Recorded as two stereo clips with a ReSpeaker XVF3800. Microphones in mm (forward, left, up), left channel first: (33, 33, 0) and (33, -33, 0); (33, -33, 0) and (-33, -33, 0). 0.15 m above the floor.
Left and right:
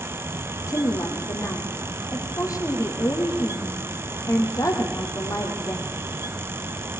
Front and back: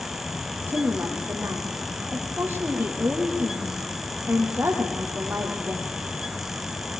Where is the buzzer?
I don't hear a buzzer.